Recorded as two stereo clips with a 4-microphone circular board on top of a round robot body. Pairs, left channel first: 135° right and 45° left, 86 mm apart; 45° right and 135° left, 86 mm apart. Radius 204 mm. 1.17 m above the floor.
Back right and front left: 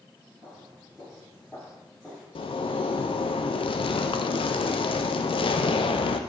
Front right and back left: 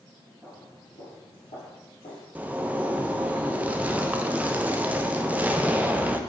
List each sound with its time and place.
0.4 s footsteps: 30° left, 1.1 m; by 2.2 s 55° right, 3 m
2.4 s a zipper: 150° right, 0.6 m